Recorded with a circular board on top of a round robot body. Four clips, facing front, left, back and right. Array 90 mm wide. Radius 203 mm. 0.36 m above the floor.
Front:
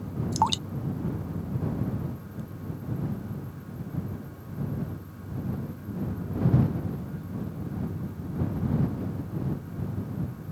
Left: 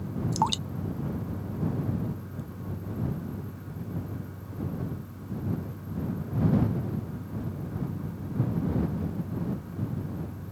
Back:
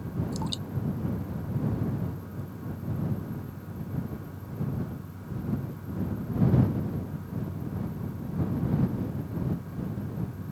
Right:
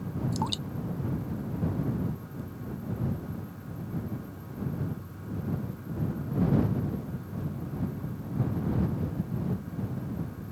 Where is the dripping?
30° left.